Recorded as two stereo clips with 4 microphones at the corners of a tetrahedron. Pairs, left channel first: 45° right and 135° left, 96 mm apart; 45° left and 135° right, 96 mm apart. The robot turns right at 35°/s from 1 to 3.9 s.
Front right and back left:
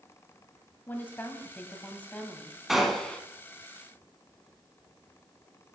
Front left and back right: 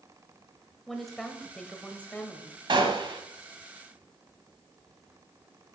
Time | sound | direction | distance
0.9 | a woman speaking | 40° right | 1.0 m
2.7 | a gunshot | 140° right | 1.1 m